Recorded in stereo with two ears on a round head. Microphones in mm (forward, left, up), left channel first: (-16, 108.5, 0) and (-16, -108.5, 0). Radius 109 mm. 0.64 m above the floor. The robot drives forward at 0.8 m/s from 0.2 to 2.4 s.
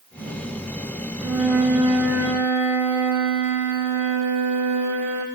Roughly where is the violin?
Centre.